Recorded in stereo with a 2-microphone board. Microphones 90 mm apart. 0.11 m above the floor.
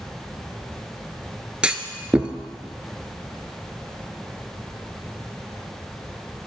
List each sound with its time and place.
1.6 s a clunk: 10° right (ahead or behind), 0.6 m